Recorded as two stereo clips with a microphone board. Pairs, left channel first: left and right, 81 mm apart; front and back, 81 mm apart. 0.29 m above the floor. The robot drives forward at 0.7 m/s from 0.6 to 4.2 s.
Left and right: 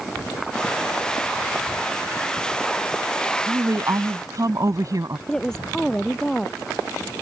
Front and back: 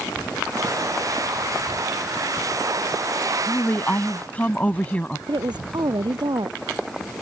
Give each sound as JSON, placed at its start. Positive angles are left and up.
{"t": 3.5, "sound": "a woman speaking", "azimuth_deg": -55}
{"t": 5.3, "sound": "a woman speaking", "azimuth_deg": 170}